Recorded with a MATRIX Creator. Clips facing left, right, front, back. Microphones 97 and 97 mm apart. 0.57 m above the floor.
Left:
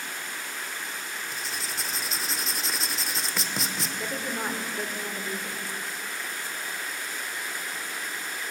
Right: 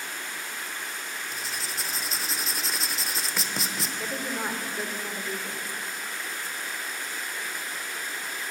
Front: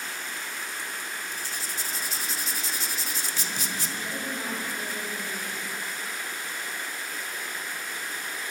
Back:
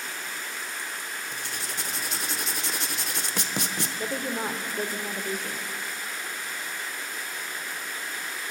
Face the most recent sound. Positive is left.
turn(degrees=180)